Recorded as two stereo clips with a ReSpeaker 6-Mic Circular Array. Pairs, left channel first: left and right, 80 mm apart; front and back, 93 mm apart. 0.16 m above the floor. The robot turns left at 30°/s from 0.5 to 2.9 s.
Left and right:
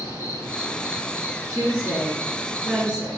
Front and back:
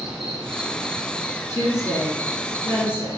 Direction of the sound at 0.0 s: 100° left.